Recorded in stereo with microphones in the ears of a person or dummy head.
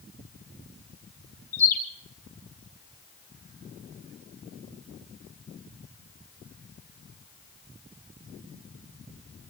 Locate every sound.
1.5 s a bird: 15° left (ahead or behind), 5 m